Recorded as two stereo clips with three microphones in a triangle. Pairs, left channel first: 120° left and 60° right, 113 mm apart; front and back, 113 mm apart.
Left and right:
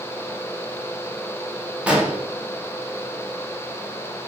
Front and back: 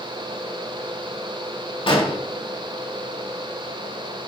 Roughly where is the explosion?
Ahead.